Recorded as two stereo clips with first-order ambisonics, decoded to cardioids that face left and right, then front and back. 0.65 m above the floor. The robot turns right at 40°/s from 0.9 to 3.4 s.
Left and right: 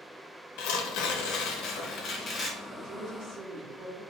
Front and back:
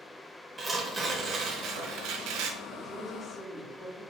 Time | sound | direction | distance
0.6 | tearing paper | 100° left | 0.7 m
2.7 | a woman speaking | 110° right | 1.0 m